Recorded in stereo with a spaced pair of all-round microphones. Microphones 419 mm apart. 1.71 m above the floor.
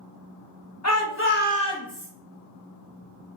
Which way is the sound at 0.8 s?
40° left (ahead or behind).